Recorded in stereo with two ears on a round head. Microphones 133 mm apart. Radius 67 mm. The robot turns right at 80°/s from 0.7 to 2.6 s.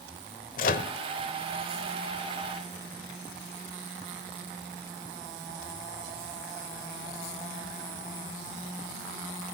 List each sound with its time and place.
0.6 s a microwave: 65° left (ahead or behind), 1.3 m; by 0.9 s 50° left (ahead or behind), 1.3 m